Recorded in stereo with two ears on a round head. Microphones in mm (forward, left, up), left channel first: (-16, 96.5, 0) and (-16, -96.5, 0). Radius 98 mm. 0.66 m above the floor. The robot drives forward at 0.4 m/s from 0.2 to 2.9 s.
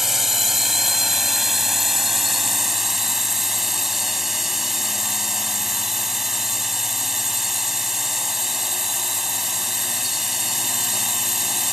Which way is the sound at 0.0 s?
Centre (ahead or behind).